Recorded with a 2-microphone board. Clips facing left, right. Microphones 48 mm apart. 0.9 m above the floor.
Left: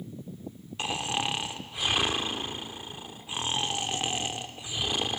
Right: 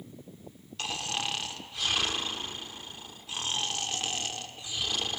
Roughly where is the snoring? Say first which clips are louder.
Left 3 dB; left.